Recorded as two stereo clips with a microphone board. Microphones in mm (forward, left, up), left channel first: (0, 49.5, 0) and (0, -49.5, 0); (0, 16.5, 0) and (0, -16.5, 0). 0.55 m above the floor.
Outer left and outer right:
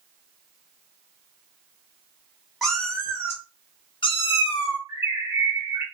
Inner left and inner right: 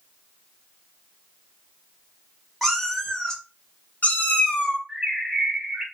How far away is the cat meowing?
About 1.0 m.